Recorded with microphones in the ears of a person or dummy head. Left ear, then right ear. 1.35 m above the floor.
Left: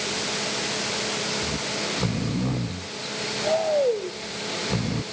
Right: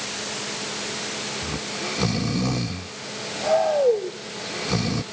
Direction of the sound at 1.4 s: 70° right (ahead or behind).